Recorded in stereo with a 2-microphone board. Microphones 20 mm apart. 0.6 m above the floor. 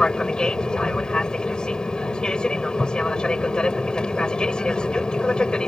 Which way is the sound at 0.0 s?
45° left (ahead or behind).